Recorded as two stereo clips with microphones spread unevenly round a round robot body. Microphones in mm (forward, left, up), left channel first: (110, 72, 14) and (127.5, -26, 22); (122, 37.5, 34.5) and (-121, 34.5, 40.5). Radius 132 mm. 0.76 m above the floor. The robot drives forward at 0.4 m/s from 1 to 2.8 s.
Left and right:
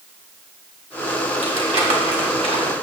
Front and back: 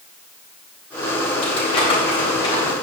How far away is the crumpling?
About 3.5 m.